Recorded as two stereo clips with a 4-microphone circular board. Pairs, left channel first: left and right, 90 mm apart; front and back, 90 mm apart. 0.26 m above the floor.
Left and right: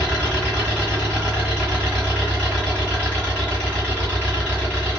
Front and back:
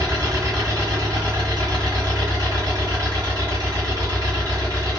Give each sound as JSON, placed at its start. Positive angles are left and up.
{"t": 0.0, "sound": "an engine running", "azimuth_deg": 155, "distance_m": 1.9}